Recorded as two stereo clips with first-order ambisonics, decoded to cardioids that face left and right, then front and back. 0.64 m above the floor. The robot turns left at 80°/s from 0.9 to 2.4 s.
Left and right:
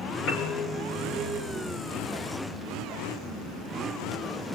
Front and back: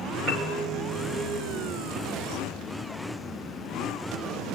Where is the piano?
130° left, 2.5 m.